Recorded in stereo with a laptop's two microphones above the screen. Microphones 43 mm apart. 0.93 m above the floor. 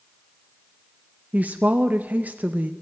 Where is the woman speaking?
40° right (ahead or behind), 0.6 m.